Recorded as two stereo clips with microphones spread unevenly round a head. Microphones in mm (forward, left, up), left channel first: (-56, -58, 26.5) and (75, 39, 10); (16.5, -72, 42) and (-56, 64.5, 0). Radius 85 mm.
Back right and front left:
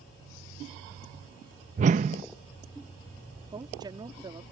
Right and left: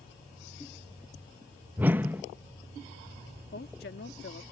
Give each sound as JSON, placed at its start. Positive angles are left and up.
{"t": 1.8, "sound": "a whoosh", "azimuth_deg": 20}
{"t": 3.5, "sound": "a woman speaking", "azimuth_deg": -30}